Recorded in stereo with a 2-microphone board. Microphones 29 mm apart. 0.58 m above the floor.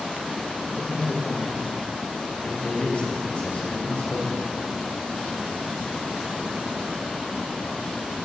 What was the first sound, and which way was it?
A man speaking, 50° left (ahead or behind).